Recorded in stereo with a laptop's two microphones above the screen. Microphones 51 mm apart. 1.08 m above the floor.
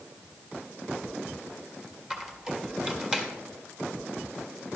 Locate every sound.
2.1 s a squeak: 15° right (ahead or behind), 1.4 m